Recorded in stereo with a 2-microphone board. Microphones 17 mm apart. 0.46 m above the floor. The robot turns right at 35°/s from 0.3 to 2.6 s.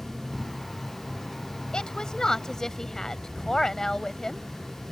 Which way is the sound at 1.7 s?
110° left.